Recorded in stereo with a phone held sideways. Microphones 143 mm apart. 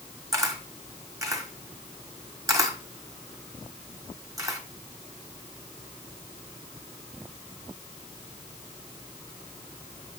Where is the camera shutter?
20° right (ahead or behind), 1.4 m.